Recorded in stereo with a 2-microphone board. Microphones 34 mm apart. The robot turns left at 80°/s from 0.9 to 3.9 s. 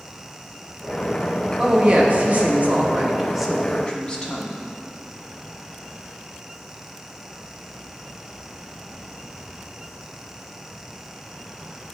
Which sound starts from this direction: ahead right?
A woman speaking, at 1.6 s.